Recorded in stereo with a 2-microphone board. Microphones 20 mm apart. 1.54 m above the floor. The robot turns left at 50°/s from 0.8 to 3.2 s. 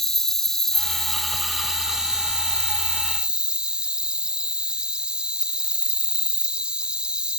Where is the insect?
20° left; by 7.4 s 100° right.